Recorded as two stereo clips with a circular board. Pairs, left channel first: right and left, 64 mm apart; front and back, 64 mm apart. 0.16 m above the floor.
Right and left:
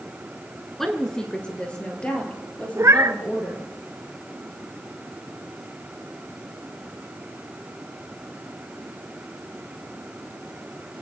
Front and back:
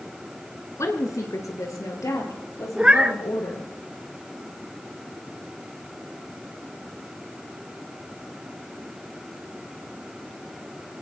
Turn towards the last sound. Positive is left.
turn(degrees=110)